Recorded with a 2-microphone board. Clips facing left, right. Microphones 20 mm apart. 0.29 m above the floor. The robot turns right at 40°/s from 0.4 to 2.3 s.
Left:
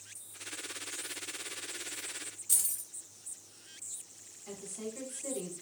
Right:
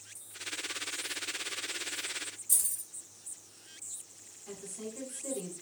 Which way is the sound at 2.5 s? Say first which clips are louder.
Even; 45° left (ahead or behind).